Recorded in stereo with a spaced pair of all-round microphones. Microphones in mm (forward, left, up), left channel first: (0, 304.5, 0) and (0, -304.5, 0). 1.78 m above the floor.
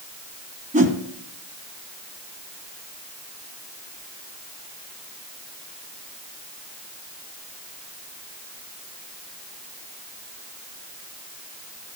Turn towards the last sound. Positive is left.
turn(degrees=-10)  # may be behind; listen again after turning